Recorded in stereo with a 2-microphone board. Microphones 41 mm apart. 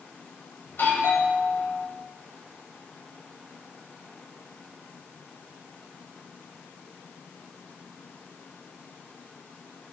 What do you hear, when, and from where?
0.7 s a doorbell: 60° left (ahead or behind), 10 m